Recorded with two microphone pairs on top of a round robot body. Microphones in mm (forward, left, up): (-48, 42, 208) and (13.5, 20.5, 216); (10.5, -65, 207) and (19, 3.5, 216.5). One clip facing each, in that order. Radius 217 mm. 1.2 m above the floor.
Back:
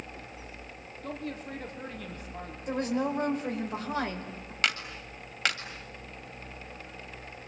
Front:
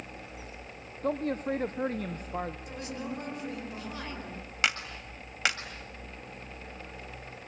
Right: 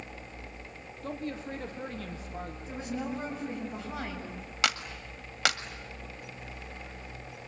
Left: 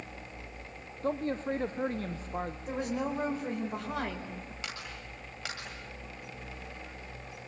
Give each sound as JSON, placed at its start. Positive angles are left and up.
{"t": 1.0, "sound": "a man speaking", "azimuth_deg": 30, "distance_m": 1.3}
{"t": 2.7, "sound": "a woman speaking", "azimuth_deg": 115, "distance_m": 5.0}
{"t": 4.6, "sound": "a clap", "azimuth_deg": -100, "distance_m": 1.9}